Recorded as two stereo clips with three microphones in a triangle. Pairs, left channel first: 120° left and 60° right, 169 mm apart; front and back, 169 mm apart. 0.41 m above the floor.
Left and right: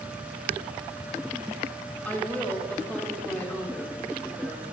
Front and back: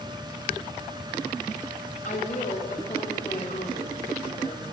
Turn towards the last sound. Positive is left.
turn(degrees=40)